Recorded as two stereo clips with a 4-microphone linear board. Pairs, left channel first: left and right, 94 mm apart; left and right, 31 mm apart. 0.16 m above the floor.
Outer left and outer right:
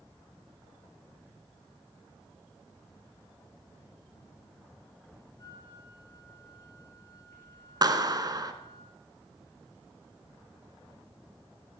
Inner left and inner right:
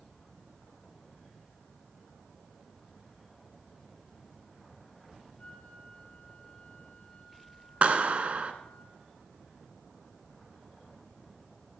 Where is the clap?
45° right (ahead or behind), 1.4 m.